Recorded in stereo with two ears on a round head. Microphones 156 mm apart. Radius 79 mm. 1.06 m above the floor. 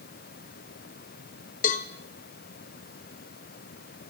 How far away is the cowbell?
About 0.9 m.